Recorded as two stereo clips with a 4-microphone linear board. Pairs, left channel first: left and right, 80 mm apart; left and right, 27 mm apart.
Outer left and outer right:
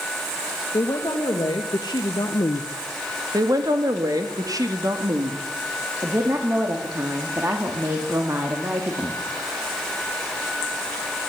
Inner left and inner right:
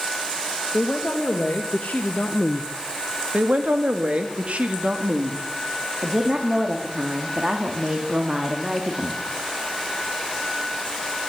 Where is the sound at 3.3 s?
55° right (ahead or behind), 2.5 m.